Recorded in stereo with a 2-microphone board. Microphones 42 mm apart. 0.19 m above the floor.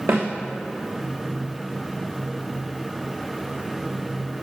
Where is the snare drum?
80° right, 3 m.